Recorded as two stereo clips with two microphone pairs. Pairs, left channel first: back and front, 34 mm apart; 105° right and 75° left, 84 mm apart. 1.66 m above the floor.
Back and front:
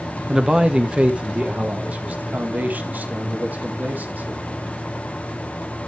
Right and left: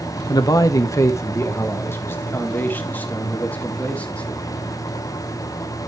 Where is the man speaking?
70° right, 1.0 m; by 4.4 s 30° right, 3 m.